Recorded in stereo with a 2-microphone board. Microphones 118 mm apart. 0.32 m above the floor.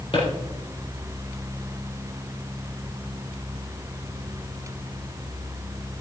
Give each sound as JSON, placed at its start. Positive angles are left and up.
{"t": 0.1, "sound": "a drawer", "side_deg": 45, "distance_m": 5.0}